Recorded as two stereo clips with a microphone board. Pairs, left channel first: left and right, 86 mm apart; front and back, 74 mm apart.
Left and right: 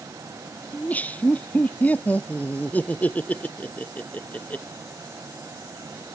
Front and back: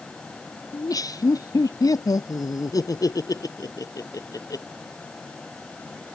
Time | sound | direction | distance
0.7 | laughter | 20° left | ?